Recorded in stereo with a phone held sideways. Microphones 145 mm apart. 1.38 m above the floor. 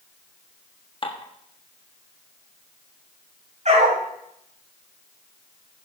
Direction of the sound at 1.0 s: 35° left (ahead or behind).